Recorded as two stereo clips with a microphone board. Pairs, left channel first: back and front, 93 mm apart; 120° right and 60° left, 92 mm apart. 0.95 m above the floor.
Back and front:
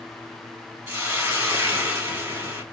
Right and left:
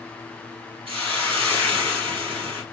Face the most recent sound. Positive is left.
turn(degrees=65)